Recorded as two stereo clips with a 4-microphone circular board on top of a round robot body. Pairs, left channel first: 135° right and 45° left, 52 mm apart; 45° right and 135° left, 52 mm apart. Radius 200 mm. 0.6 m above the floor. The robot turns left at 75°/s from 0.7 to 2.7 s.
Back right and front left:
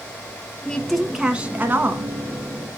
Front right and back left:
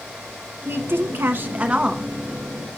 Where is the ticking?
I don't hear ticking.